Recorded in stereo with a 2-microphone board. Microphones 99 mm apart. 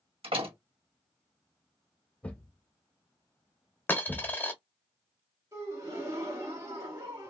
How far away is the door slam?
About 1.6 m.